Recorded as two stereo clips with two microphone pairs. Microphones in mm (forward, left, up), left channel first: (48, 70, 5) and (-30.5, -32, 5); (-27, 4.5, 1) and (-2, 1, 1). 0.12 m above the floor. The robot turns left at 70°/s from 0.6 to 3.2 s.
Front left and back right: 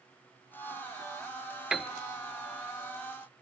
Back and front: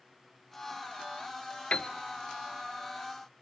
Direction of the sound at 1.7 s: 145° left.